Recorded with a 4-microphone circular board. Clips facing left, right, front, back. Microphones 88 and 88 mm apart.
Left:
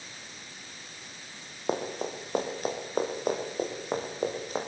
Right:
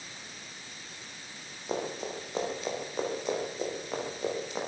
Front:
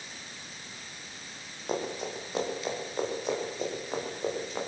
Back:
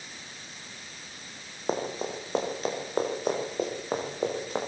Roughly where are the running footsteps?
Behind left.